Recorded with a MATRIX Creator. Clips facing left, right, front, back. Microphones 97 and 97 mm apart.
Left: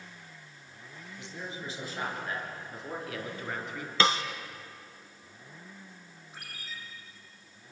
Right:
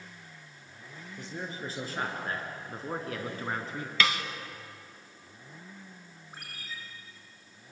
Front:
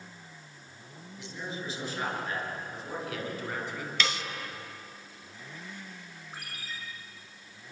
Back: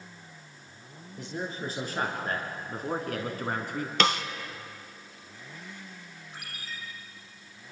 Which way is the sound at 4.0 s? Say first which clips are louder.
Left 3 dB, back 7 dB; 150° left.